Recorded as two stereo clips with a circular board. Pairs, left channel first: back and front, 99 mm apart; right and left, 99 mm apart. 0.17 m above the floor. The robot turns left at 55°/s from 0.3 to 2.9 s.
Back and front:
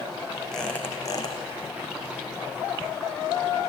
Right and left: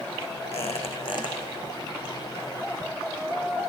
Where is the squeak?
90° right, 4 m; by 1.4 s 140° right, 4 m.